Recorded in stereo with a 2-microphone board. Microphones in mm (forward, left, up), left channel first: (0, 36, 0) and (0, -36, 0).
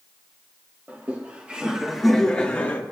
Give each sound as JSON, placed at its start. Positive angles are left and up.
{"t": 0.9, "sound": "laughter", "side_deg": -30, "distance_m": 1.2}